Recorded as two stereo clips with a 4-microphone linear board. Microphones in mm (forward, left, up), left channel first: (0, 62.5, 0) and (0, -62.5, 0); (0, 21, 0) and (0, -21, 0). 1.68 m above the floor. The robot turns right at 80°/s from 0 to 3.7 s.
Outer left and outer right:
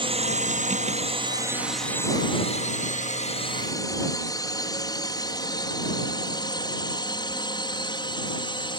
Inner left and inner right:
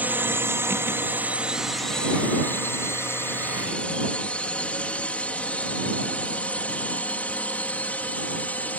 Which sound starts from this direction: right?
A drone, at 0.0 s.